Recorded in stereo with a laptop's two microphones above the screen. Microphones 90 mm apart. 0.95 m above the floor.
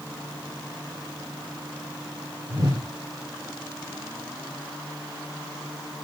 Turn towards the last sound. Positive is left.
turn(degrees=-45)  # may be behind; listen again after turning